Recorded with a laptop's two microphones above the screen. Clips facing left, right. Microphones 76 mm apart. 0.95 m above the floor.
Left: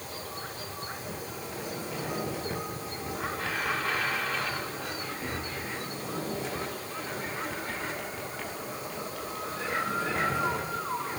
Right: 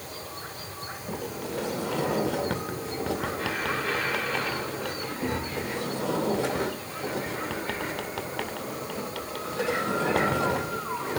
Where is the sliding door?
80° right, 2 m.